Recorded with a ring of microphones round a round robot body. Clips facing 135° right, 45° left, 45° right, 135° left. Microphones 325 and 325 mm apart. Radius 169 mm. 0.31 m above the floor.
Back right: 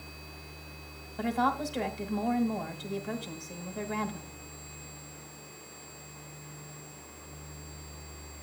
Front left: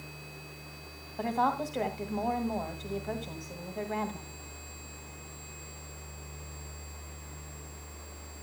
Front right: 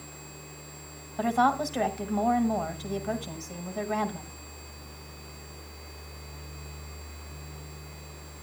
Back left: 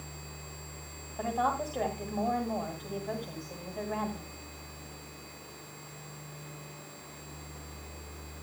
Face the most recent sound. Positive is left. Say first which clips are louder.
# back right 1 dB, front right 7 dB
turn(degrees=-80)